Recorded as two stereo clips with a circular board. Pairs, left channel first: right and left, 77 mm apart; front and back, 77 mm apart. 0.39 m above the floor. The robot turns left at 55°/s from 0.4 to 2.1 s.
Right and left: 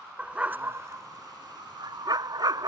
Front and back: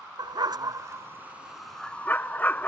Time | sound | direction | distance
0.2 | a dog barking | 160° left | ?